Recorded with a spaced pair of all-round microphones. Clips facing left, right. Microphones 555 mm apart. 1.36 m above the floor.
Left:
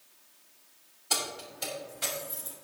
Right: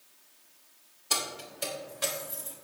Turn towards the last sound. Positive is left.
turn(degrees=10)  # may be behind; listen again after turning